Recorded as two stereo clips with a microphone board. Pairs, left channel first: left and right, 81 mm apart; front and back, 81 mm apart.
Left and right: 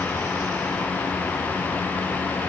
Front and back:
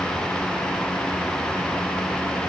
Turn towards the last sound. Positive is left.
No sound to turn to.